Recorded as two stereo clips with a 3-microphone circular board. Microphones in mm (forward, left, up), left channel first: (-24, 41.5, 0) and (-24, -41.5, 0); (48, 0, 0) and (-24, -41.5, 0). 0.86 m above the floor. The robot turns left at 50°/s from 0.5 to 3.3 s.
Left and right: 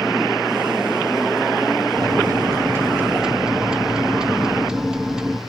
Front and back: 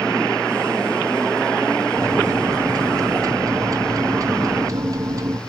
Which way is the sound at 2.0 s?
105° right.